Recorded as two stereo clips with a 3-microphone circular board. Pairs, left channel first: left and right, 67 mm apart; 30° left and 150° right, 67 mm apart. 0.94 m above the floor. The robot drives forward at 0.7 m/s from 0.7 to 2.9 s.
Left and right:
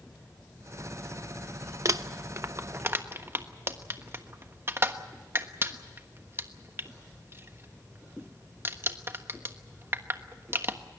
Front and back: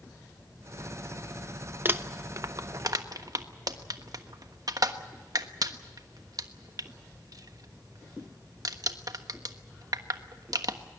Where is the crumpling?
100° right, 0.9 m; by 10.8 s 140° right, 1.2 m.